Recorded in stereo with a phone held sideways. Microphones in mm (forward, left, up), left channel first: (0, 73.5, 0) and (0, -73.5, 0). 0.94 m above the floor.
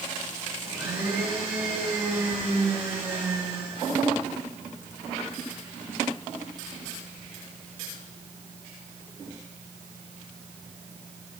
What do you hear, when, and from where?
0.6 s a blender: 15° right (ahead or behind), 6.5 m